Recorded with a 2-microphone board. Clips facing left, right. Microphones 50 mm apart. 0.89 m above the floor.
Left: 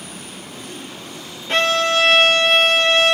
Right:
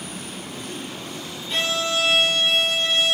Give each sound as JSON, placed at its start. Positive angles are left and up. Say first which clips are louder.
{"t": 1.5, "sound": "a violin", "louder": "left 7 dB", "side_deg": 55, "distance_m": 1.7}